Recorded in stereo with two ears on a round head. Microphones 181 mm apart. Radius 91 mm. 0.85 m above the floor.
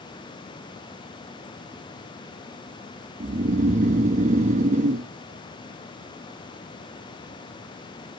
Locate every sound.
3.2 s snoring: 35° right (ahead or behind), 1.1 m